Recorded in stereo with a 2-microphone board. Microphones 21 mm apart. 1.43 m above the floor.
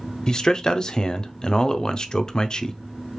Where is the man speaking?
30° left (ahead or behind), 0.5 m.